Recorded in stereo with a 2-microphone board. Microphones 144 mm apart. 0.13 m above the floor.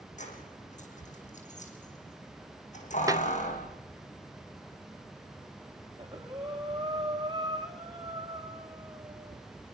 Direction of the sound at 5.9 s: 30° right (ahead or behind).